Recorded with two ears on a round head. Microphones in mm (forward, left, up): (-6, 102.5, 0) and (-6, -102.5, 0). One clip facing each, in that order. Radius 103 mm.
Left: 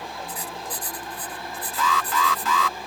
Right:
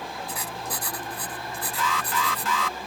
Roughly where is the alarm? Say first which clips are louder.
Left 4 dB; left.